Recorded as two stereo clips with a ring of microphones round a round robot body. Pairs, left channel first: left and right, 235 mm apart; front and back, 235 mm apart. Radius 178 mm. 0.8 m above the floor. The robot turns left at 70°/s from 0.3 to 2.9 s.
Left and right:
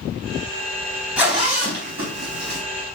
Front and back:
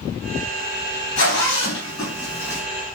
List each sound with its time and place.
1.2 s a zipper: 5° right, 3 m; by 2.6 s 105° right, 3 m